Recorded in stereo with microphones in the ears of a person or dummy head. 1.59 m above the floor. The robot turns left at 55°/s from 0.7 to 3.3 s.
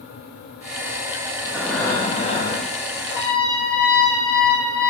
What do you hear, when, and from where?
1.4 s breathing: 175° right, 0.7 m; by 3.0 s 100° left, 0.7 m
3.1 s a trumpet: 65° left (ahead or behind), 1.5 m; by 4.9 s 60° left (ahead or behind), 1.5 m